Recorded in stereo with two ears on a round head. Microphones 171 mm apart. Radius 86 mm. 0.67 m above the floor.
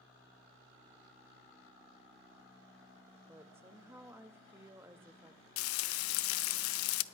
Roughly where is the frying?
Left.